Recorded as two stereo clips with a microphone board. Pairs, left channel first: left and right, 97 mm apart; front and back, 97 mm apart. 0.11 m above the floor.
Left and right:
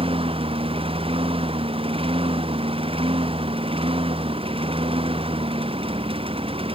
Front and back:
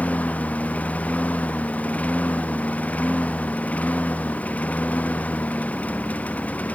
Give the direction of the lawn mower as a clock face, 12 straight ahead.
3 o'clock.